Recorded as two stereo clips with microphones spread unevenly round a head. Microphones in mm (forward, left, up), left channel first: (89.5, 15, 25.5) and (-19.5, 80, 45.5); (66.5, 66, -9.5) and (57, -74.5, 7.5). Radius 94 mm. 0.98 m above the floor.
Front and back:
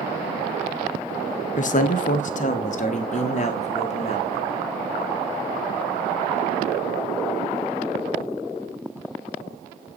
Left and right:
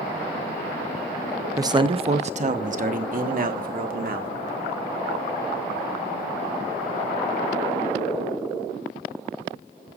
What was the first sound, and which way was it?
A man speaking, 25° right.